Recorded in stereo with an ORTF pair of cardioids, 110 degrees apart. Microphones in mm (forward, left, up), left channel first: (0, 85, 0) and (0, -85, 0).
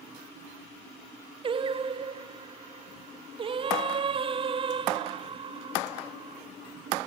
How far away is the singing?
About 0.9 m.